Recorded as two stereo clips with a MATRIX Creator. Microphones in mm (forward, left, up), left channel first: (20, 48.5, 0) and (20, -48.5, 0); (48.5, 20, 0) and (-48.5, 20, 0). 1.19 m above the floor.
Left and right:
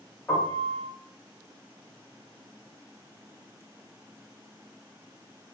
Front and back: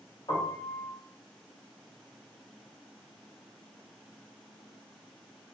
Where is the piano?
25° left, 1.7 m.